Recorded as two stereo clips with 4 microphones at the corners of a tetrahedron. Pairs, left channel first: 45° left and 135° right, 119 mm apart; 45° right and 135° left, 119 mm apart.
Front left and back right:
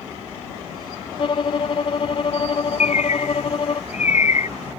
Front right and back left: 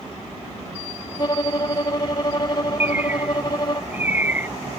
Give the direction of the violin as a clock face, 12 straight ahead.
12 o'clock.